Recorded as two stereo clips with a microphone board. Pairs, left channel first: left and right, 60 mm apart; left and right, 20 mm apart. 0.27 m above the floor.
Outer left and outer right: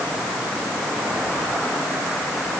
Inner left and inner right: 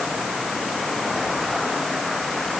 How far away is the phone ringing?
I don't hear a phone ringing.